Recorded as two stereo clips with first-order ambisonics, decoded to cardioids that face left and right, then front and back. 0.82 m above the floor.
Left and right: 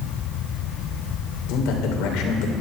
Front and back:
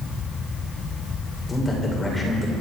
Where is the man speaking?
75° left, 3 m.